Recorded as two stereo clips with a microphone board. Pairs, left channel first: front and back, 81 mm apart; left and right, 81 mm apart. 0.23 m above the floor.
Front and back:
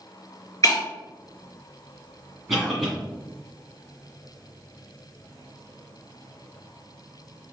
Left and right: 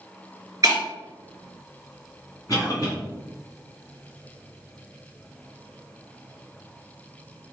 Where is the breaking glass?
45° right, 1.4 m.